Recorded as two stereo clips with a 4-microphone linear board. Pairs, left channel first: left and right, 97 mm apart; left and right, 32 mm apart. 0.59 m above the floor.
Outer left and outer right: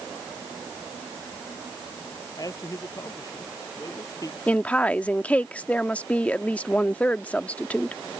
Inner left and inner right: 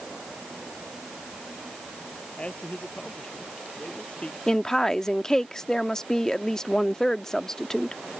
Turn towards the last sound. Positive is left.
turn(degrees=15)  # may be behind; listen again after turning